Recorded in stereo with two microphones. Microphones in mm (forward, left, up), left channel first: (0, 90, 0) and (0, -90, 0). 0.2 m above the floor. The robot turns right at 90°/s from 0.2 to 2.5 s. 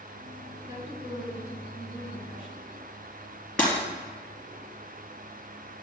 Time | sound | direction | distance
0.7 | a woman speaking | 165° right | 2.5 m
3.6 | breaking glass | 5° left (ahead or behind) | 2.5 m